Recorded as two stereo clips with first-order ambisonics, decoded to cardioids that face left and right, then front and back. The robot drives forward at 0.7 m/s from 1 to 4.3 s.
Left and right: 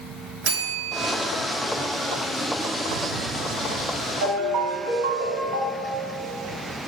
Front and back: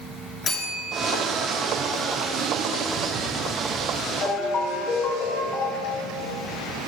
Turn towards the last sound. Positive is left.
turn(degrees=-65)